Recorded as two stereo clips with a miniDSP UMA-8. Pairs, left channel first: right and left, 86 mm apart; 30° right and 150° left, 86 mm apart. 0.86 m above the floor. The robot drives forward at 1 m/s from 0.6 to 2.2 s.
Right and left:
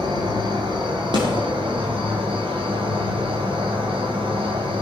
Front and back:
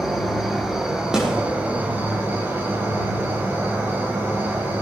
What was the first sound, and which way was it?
An insect, 65° left.